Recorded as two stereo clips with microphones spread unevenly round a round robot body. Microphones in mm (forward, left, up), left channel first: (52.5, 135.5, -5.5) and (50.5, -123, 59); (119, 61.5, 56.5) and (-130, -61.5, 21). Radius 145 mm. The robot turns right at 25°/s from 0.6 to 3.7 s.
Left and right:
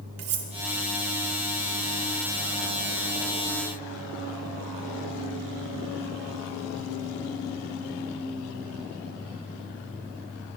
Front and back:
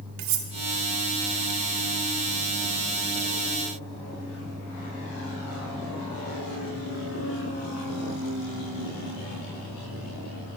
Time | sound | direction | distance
0.2 | cutlery clinking | 130° right | 0.7 m